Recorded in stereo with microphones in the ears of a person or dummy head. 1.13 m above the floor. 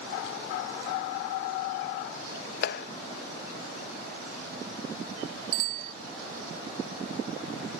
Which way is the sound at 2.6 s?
65° left (ahead or behind).